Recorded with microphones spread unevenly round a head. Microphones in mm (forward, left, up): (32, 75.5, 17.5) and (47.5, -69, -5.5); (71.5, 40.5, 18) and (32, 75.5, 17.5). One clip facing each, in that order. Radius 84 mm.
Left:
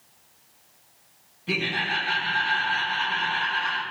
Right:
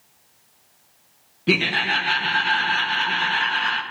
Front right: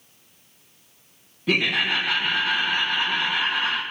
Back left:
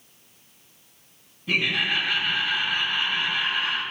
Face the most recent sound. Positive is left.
turn(degrees=-75)